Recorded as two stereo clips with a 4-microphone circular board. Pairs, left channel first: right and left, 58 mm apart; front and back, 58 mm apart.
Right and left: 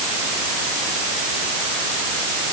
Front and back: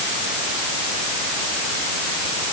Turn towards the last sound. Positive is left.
No sound to turn to.